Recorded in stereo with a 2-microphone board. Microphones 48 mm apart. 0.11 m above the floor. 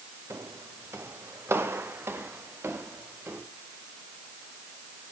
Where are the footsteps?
60° right (ahead or behind), 2.5 m; by 3.4 s 50° right (ahead or behind), 4.5 m.